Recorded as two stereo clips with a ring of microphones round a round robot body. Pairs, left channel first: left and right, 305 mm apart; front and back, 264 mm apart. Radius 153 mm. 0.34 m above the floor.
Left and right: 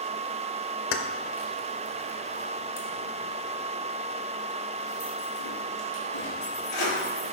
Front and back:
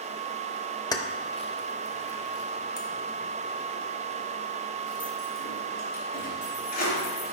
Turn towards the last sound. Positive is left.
turn(degrees=55)